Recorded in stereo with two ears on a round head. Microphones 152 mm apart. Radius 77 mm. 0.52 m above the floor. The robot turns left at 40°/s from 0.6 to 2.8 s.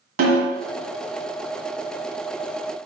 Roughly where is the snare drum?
Right.